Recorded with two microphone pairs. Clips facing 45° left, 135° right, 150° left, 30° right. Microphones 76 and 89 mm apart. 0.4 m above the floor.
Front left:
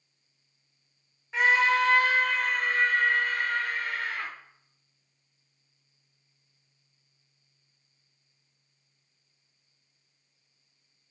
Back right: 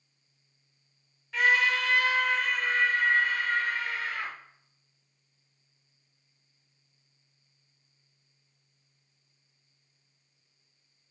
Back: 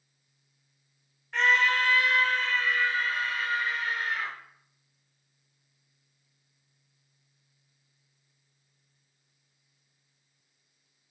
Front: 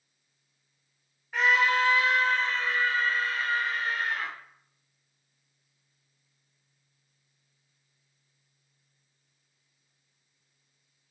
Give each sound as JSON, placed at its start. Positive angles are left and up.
{"t": 1.3, "sound": "a scream", "azimuth_deg": 45, "distance_m": 1.0}